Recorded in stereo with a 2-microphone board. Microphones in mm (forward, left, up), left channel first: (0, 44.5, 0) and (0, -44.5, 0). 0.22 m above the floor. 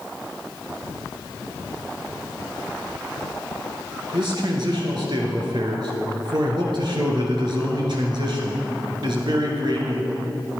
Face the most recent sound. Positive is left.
turn(degrees=-60)  # may be behind; listen again after turning